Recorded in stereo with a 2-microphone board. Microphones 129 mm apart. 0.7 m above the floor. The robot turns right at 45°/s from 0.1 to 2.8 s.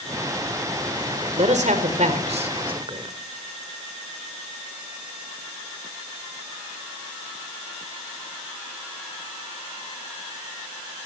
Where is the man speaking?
110° right, 3 m; by 3.1 s 45° right, 3 m.